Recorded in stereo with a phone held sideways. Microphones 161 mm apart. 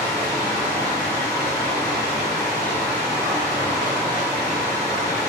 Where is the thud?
No thud in this recording.